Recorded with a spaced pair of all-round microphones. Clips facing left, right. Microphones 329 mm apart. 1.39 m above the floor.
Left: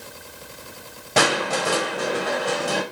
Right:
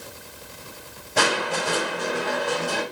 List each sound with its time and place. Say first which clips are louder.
1.2 s crushing: left 3 dB; 75° left (ahead or behind), 1.0 m